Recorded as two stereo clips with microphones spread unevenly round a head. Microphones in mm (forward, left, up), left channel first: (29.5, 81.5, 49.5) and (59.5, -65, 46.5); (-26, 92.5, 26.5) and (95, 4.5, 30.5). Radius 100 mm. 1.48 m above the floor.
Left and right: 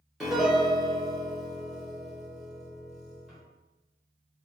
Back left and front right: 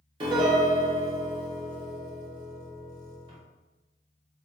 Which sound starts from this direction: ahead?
A piano, at 0.2 s.